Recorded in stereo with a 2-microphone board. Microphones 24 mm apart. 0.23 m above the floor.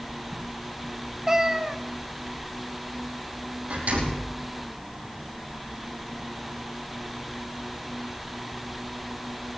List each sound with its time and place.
1.3 s a cat meowing: 20° right (ahead or behind), 0.8 m
3.7 s a door slam: 80° right, 5 m